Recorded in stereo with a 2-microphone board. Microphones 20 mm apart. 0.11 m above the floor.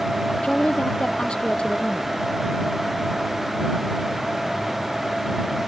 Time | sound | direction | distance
0.4 | a woman speaking | 50° left (ahead or behind) | ?